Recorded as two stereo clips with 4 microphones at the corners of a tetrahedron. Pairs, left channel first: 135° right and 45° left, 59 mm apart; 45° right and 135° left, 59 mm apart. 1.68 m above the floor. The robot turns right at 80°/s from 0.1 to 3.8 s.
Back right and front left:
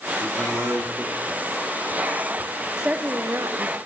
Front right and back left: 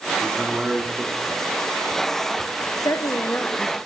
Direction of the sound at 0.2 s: 30° left.